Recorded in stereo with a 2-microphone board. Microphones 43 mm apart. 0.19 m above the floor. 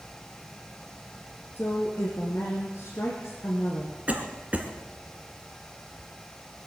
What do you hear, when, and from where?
1.6 s a woman speaking: 65° left (ahead or behind), 3 m
4.1 s a cough: 35° right (ahead or behind), 2 m